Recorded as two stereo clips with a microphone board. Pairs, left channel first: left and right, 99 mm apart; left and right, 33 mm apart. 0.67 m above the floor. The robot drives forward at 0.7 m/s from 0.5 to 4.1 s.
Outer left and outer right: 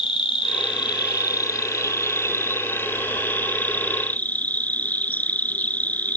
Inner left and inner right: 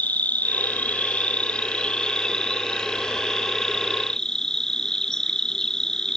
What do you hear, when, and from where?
0.0 s an insect: 65° left (ahead or behind); by 6.2 s 15° left (ahead or behind)